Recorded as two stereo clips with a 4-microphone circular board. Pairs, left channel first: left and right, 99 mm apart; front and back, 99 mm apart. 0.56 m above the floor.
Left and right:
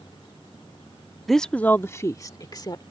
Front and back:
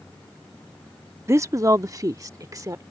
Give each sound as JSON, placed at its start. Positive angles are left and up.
{"t": 1.3, "sound": "a woman speaking", "azimuth_deg": 180}